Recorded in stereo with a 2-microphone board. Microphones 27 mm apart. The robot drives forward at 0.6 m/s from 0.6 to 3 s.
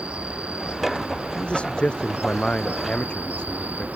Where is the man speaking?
45° left (ahead or behind); by 3.9 s 40° left (ahead or behind).